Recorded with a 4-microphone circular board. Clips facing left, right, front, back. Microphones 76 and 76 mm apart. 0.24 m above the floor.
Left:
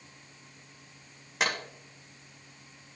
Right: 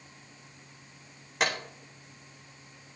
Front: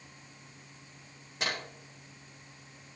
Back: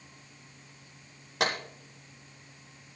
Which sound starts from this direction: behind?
A clap, at 1.4 s.